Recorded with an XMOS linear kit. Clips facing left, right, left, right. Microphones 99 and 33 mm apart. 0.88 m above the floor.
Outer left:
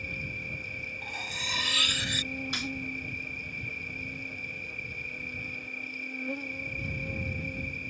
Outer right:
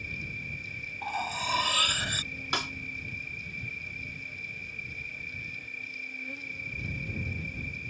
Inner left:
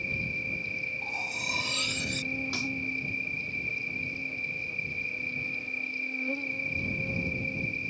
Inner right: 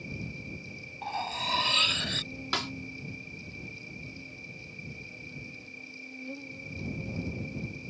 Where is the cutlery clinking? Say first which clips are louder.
Outer right 10 dB, inner left 1 dB; 40° right (ahead or behind).